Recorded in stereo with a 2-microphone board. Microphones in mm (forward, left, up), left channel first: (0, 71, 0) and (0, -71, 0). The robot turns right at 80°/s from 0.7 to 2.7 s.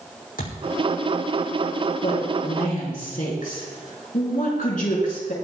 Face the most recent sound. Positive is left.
turn(degrees=105)